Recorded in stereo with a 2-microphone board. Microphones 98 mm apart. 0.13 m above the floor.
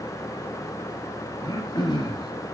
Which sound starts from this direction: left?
Throat clearing, at 1.4 s.